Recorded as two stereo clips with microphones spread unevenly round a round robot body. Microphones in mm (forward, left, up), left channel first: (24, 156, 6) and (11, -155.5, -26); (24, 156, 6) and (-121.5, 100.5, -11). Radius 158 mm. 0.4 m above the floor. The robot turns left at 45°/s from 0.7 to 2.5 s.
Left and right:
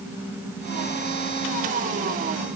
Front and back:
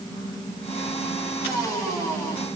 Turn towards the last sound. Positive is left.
No sound to turn to.